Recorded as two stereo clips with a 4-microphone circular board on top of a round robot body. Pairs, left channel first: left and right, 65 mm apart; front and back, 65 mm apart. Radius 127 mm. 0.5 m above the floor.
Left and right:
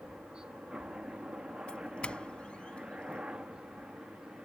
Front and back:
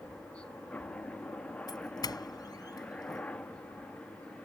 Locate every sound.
0.0 s a helicopter: 35° right
1.7 s a doorbell: 15° left